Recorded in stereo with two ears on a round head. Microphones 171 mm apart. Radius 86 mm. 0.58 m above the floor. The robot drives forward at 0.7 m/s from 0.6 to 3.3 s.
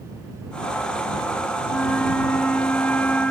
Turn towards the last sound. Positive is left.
turn(degrees=5)  # may be behind; listen again after turning